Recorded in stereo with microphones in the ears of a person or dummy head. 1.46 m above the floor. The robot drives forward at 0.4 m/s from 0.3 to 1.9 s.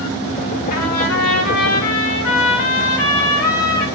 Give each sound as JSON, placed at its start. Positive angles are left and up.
{"t": 0.7, "sound": "a trumpet", "side_deg": 85, "distance_m": 4.5}